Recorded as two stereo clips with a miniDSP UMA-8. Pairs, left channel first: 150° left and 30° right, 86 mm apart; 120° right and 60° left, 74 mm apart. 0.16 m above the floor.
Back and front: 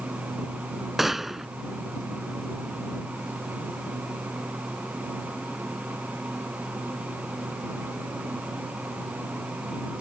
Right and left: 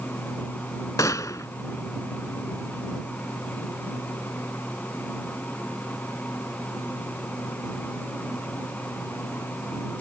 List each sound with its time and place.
1.0 s a gunshot: 115° right